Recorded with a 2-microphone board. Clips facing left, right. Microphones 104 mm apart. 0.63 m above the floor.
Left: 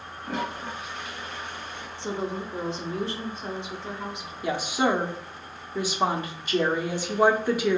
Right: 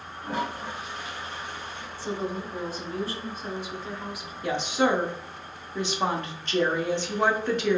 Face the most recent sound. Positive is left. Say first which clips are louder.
# even
turn(degrees=10)  # may be behind; listen again after turning